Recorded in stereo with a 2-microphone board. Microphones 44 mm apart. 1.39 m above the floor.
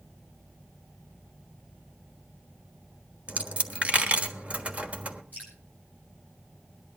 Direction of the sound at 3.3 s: 30° right (ahead or behind).